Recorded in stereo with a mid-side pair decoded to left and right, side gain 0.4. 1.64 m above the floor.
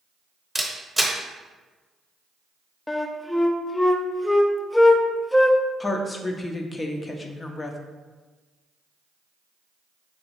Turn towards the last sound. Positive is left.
turn(degrees=35)